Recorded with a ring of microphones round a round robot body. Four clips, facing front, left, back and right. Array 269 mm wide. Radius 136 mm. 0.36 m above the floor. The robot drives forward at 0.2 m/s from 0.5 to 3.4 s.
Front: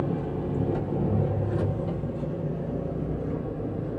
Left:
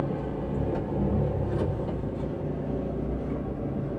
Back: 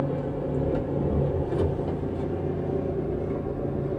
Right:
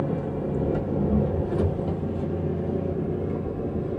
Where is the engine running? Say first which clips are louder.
Right 3 dB, back 1 dB; 115° right, 1.1 m; by 4.0 s 150° right, 1.4 m.